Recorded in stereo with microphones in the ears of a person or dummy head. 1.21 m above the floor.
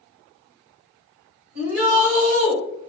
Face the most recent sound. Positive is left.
turn(degrees=-35)  # may be behind; listen again after turning